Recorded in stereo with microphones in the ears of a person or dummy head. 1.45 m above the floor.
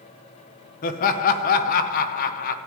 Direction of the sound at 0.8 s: 45° left (ahead or behind).